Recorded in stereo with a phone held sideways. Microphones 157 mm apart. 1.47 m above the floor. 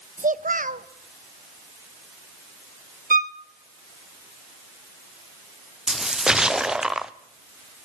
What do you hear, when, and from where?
0.2 s a child speaking: 60° right (ahead or behind), 0.9 m
3.1 s a violin: 60° right (ahead or behind), 0.8 m
5.9 s a splash: 5° right (ahead or behind), 0.7 m